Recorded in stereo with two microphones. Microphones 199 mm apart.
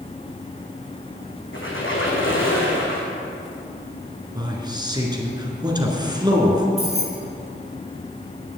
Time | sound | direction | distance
1.5 | a squeak | 80° left | 3 m
4.3 | a man speaking | 20° right (ahead or behind) | 2.0 m
6.8 | keys jangling | 30° left (ahead or behind) | 2.5 m